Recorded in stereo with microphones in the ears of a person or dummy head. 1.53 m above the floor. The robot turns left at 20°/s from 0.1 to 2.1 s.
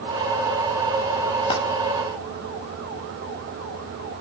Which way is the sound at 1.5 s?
25° left (ahead or behind).